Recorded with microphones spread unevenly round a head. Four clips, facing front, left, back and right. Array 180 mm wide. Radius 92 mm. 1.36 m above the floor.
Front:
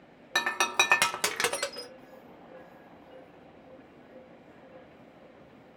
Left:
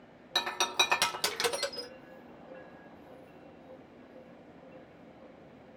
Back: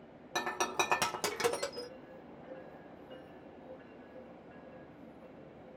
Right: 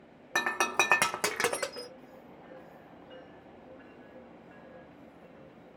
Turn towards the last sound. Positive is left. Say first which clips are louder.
# right 3 dB, front 5 dB
turn(degrees=-85)